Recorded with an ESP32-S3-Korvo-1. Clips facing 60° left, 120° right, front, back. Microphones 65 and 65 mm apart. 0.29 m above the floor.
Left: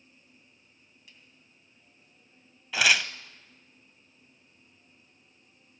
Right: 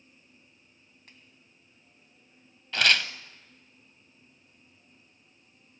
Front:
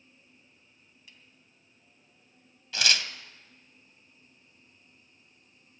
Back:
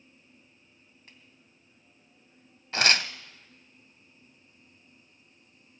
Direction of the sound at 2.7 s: 140° left.